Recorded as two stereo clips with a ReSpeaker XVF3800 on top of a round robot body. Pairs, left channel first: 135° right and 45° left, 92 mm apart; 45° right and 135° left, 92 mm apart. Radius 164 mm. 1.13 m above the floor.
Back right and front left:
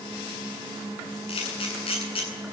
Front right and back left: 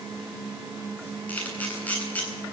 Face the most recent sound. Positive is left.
turn(degrees=-120)